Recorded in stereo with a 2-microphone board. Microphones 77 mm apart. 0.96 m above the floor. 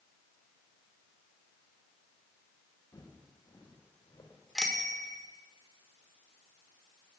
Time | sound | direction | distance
2.9 | footsteps | 45° left (ahead or behind) | 5 m
4.5 | a bicycle bell | 5° left (ahead or behind) | 2 m